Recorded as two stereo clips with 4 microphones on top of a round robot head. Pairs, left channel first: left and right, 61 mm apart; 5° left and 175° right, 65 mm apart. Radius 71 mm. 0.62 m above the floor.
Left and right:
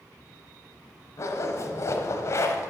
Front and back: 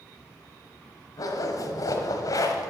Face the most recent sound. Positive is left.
turn(degrees=45)